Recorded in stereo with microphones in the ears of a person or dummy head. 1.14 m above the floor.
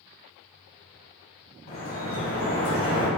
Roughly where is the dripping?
Left.